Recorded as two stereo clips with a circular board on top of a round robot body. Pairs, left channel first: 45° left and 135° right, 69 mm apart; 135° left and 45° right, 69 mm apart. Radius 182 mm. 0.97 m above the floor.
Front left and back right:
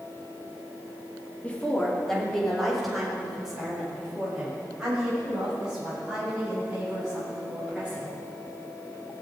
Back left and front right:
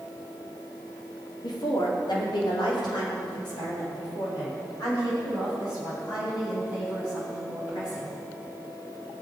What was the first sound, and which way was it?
A woman speaking, 115° left.